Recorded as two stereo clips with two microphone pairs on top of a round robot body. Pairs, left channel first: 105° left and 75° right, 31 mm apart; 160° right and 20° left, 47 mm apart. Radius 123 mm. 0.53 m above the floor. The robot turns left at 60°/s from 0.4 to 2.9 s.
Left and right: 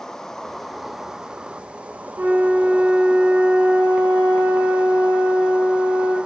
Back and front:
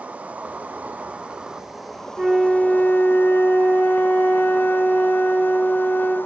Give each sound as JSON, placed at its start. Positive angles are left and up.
{"t": 0.0, "sound": "an insect", "azimuth_deg": 35, "distance_m": 1.1}
{"t": 2.2, "sound": "a flute", "azimuth_deg": -55, "distance_m": 3.0}